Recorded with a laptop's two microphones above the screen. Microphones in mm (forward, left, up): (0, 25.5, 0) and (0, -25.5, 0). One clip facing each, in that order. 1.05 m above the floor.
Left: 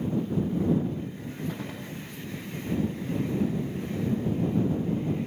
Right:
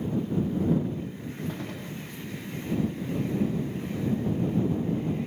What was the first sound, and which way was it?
A gunshot, 5° left (ahead or behind).